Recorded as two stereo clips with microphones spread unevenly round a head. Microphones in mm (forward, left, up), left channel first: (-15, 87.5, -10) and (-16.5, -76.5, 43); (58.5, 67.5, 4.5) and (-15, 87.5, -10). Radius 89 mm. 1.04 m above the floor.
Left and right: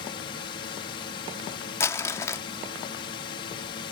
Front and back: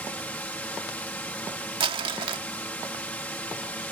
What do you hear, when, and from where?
0.0 s a drone: 50° left
1.8 s crumpling: 170° left